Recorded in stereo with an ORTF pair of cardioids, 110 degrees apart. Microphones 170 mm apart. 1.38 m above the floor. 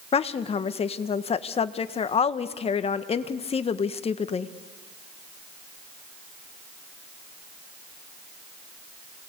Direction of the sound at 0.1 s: 35° left.